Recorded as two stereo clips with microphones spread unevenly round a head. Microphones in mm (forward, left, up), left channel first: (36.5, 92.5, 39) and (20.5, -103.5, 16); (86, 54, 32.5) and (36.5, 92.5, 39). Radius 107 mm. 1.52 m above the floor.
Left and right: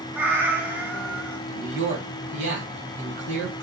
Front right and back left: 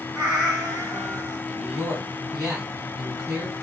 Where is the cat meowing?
Straight behind, 0.7 m.